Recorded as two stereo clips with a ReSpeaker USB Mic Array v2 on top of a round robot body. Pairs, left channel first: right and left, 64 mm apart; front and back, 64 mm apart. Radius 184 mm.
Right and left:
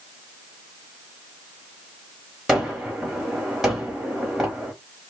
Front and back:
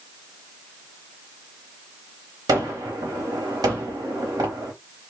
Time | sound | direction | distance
2.5 | a gunshot | 175° left | 1.2 m